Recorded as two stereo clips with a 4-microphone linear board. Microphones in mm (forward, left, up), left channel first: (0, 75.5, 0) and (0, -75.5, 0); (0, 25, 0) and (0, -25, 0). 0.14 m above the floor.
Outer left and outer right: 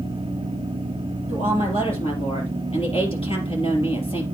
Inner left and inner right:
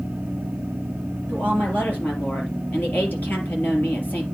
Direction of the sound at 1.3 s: 35° left (ahead or behind).